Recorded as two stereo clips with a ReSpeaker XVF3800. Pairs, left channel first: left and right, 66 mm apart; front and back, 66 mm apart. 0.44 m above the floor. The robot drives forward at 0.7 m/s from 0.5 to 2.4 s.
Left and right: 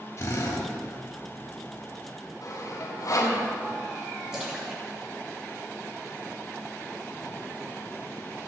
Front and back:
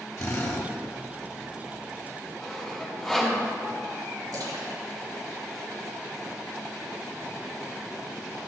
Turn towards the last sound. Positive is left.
turn(degrees=-170)